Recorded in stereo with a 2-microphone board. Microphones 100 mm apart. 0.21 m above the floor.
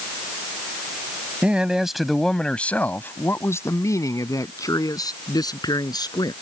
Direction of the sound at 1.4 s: 10° right (ahead or behind).